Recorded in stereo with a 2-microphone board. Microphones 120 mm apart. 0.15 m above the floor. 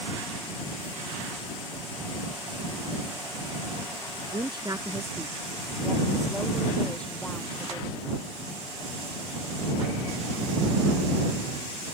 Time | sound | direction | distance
4.3 | a woman speaking | 45° right (ahead or behind) | ?